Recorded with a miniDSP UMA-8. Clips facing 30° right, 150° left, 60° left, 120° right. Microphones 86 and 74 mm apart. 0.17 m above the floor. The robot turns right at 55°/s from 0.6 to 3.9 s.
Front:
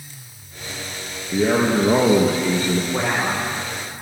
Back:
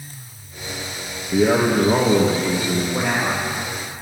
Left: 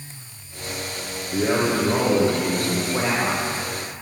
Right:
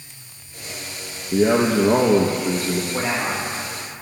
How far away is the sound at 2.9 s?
About 8 m.